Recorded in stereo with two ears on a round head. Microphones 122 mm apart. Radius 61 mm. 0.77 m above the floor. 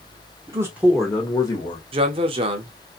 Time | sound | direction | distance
0.5 | a man speaking | 25° right (ahead or behind) | 0.8 m
1.9 | a man speaking | 40° right (ahead or behind) | 0.7 m